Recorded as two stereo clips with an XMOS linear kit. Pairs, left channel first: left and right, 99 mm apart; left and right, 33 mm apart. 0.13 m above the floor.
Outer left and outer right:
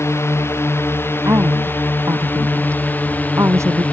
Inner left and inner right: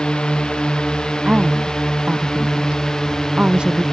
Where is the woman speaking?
25° right (ahead or behind).